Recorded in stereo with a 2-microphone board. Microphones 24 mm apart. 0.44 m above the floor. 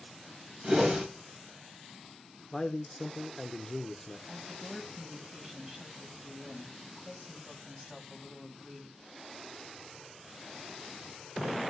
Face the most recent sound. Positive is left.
turn(degrees=-25)  # may be behind; listen again after turning